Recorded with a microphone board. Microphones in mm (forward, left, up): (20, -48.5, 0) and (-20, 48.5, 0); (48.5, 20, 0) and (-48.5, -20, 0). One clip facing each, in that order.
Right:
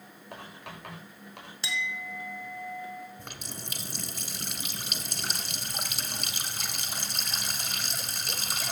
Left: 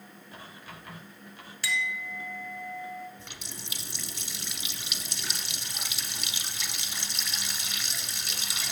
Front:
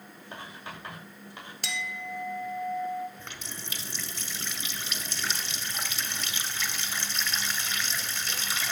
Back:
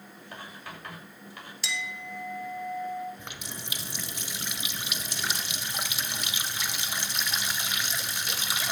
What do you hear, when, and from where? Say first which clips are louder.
0.3 s writing: right 4 dB, front 1 dB; 45° right, 7.5 m
1.6 s a clink: left 2 dB, front 1 dB; 5° right, 1.6 m
3.2 s a running tap: right 3 dB, back 1 dB; 85° right, 1.4 m